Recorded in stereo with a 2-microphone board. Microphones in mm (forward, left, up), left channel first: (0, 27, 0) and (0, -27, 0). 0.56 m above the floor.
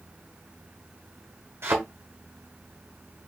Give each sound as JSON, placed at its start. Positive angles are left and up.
{"t": 1.6, "sound": "a thud", "side_deg": -50, "distance_m": 2.0}